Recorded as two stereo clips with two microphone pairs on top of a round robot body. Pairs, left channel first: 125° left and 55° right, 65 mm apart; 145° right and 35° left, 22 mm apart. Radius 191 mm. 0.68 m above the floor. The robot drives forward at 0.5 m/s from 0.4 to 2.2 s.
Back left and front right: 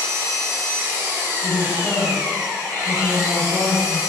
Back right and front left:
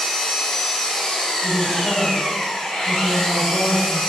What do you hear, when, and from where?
0.0 s an engine running: 95° right, 1.2 m; by 4.1 s 135° right, 1.5 m
1.4 s a woman speaking: 165° right, 1.8 m